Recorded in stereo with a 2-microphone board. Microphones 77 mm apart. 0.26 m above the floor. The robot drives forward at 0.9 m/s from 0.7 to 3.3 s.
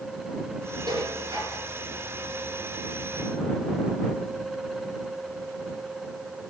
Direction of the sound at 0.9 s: 75° right (ahead or behind).